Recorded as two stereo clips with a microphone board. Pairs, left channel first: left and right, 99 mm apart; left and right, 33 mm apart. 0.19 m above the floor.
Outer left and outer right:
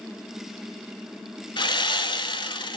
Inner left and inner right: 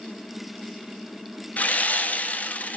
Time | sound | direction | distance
1.6 | sawing | 55° left (ahead or behind) | 0.7 m